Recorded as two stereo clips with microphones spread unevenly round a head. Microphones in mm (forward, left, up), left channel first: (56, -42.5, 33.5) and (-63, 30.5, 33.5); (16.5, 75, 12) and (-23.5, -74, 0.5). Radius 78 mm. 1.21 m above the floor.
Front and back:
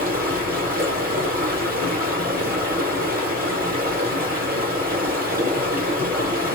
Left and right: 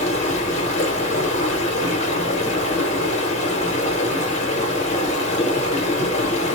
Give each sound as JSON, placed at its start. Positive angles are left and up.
{"t": 0.0, "sound": "running water", "azimuth_deg": 125, "distance_m": 1.1}